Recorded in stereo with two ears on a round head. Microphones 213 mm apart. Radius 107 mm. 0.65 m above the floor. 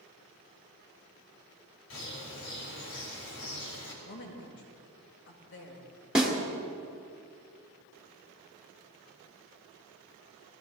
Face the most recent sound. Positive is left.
turn(degrees=-5)  # may be behind; listen again after turning